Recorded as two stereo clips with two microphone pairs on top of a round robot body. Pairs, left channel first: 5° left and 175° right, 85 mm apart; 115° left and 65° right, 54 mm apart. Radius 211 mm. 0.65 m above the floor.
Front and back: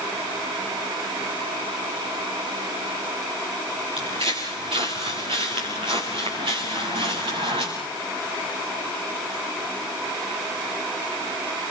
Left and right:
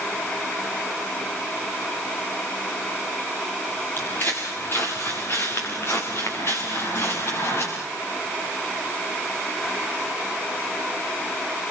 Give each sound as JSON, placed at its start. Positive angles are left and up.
{"t": 4.0, "sound": "footsteps", "azimuth_deg": 165, "distance_m": 4.5}